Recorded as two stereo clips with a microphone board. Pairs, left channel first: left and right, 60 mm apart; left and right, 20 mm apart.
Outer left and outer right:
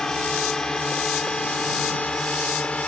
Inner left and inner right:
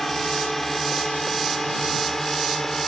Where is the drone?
5° left (ahead or behind); by 2.9 s 15° left (ahead or behind).